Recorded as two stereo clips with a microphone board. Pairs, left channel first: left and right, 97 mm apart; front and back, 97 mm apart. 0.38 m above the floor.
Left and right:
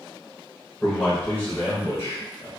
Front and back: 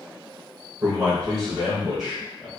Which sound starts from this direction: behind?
A man speaking, at 0.8 s.